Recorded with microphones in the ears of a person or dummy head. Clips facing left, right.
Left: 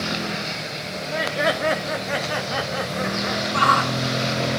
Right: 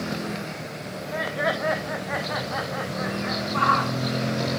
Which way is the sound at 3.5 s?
55° left (ahead or behind).